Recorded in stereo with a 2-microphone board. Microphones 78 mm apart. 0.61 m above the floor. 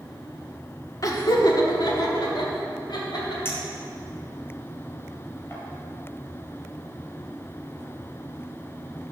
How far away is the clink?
About 1.9 m.